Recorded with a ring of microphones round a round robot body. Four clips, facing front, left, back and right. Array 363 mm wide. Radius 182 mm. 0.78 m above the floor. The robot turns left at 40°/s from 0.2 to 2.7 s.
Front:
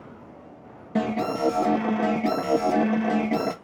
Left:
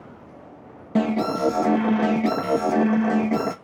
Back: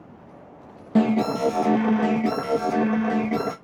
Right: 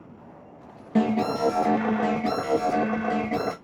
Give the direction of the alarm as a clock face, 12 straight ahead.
7 o'clock.